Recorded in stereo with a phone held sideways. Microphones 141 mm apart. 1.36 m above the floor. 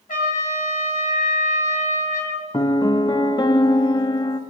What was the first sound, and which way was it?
A trumpet, 65° left (ahead or behind).